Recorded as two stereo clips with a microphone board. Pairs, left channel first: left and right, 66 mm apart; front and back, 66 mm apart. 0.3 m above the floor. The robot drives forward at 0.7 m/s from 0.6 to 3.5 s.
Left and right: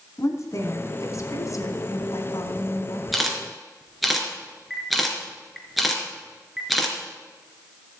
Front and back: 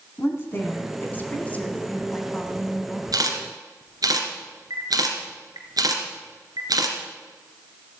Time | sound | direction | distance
0.2 | a woman speaking | 50° left | 3 m
3.1 | a camera shutter | straight behind | 2.5 m